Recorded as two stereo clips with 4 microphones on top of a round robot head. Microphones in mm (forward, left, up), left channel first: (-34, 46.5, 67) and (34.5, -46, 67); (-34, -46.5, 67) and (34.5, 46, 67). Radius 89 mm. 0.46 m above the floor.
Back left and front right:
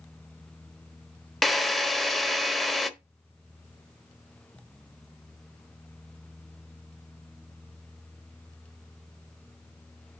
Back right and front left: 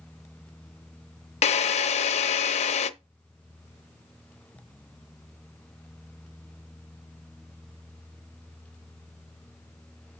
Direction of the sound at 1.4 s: 145° right.